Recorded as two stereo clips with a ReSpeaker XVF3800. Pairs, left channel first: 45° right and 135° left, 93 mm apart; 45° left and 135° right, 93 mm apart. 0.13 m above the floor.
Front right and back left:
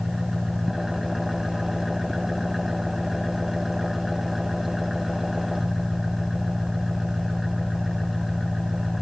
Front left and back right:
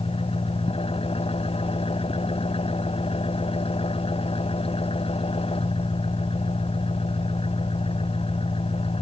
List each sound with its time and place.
0.0 s an engine running: 45° left